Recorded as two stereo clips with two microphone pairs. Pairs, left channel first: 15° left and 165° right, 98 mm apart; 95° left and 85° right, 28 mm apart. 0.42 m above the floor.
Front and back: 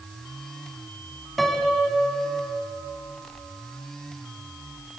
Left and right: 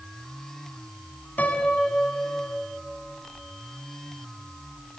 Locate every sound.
1.4 s a piano: 105° left, 2 m